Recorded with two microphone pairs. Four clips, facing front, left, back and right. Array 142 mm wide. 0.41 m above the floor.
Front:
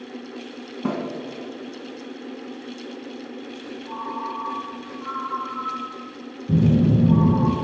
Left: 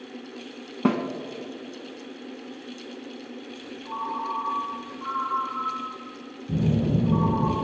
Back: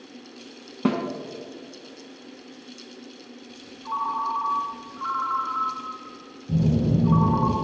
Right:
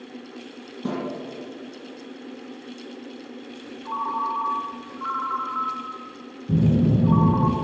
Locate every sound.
0.8 s a snare drum: 105° left, 1.9 m
3.9 s a ringtone: 130° right, 3 m
6.5 s a phone buzzing: 30° right, 1.9 m